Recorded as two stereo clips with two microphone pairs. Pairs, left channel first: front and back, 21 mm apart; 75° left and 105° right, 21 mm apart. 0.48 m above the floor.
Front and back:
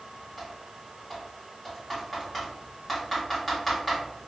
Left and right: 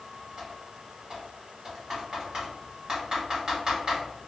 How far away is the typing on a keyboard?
About 1.4 m.